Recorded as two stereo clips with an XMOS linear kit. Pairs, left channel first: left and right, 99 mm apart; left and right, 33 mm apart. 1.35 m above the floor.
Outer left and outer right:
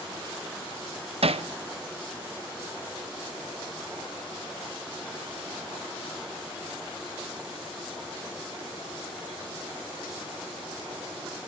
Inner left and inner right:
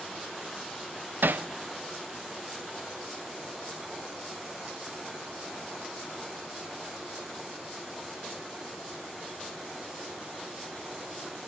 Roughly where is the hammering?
Right.